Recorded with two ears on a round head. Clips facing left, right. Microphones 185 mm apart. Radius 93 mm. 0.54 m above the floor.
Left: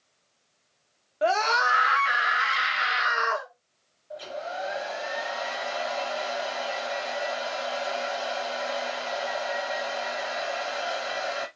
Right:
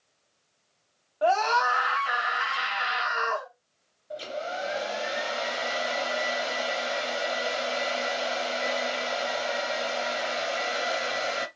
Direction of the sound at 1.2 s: 25° left (ahead or behind).